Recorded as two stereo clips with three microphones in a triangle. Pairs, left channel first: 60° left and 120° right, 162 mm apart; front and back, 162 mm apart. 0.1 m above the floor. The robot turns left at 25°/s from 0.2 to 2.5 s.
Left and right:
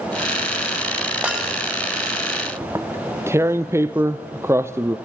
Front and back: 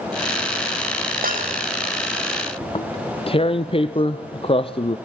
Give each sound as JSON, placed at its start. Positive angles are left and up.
{"t": 1.2, "sound": "breaking glass", "azimuth_deg": 155, "distance_m": 7.0}
{"t": 2.6, "sound": "tearing paper", "azimuth_deg": -50, "distance_m": 1.0}